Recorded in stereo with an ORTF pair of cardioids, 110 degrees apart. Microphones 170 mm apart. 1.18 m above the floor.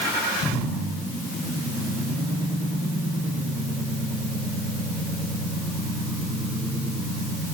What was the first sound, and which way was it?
Only background noise.